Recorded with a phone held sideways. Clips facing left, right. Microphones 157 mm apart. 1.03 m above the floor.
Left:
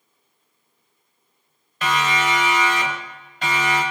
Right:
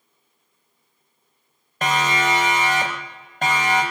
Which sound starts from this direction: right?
A siren, at 1.8 s.